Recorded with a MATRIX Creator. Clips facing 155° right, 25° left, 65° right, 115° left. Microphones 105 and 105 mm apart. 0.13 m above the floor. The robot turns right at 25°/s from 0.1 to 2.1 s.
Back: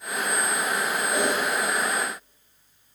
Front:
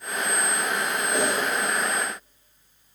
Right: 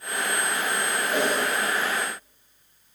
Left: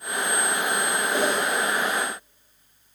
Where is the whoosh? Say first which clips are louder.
Even, even; 130° right, 1.9 m; by 1.4 s 125° right, 1.9 m.